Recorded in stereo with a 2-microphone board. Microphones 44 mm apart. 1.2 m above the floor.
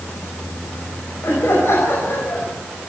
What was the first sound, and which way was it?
Laughter, 60° left (ahead or behind).